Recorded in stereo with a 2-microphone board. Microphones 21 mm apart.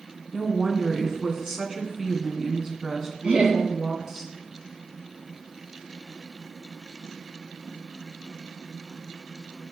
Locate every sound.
0.3 s a woman speaking: 20° right (ahead or behind), 2 m
3.2 s laughter: 65° right (ahead or behind), 4 m